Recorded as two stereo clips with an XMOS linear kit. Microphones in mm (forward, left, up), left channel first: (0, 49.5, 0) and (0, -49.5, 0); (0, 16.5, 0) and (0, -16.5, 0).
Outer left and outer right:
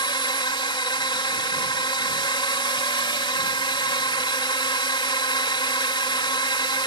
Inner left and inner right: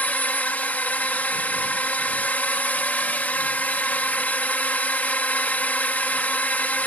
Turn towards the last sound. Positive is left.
turn(degrees=55)  # may be behind; listen again after turning